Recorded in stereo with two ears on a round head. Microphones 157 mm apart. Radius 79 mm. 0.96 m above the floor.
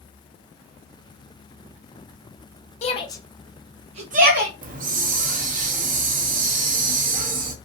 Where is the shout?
40° left (ahead or behind), 0.7 m; by 4.5 s 60° right (ahead or behind), 0.9 m.